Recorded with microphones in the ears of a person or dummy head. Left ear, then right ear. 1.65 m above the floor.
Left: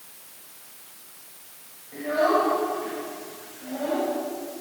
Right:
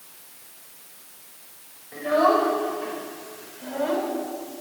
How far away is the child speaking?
About 4 m.